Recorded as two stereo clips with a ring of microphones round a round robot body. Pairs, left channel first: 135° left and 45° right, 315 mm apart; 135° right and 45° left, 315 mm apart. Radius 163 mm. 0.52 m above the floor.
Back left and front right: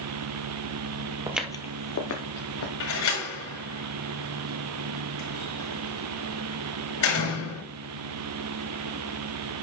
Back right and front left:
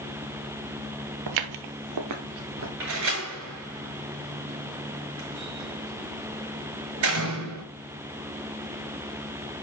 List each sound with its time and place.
1.3 s footsteps: 35° left, 0.8 m; by 2.7 s 100° left, 1.6 m
2.8 s a door slam: 95° left, 6.5 m